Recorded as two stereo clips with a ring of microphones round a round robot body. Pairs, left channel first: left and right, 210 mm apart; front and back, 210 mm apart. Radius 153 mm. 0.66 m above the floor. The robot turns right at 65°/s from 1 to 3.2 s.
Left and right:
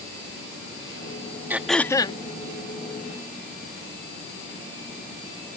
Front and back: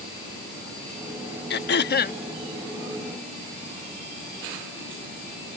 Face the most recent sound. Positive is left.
turn(degrees=100)